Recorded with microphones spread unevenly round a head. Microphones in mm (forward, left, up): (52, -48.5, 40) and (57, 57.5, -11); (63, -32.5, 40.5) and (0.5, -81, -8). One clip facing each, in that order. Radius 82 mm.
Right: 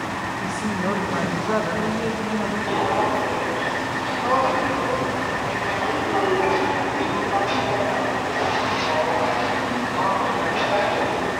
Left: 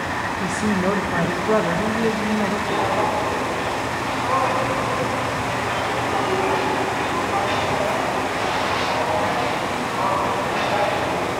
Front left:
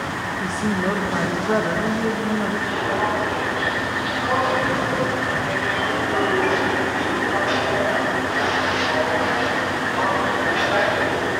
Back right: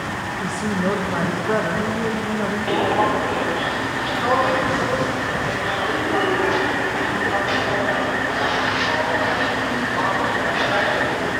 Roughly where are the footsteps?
Behind right.